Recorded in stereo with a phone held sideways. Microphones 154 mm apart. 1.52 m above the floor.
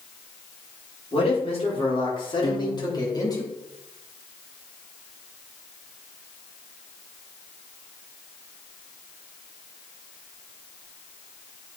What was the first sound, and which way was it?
A man speaking, 40° left (ahead or behind).